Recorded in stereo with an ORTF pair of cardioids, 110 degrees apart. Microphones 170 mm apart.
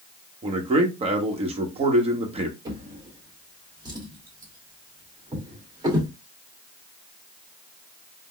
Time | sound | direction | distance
0.4 | a man speaking | 35° right | 1.2 m
2.6 | a drawer | 25° right | 1.6 m